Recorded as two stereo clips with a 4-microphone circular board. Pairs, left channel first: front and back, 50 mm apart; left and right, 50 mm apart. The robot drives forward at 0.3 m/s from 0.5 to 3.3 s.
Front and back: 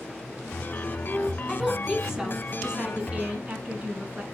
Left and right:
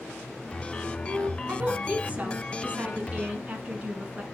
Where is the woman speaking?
80° right, 1.2 m; by 4.2 s 135° right, 1.3 m.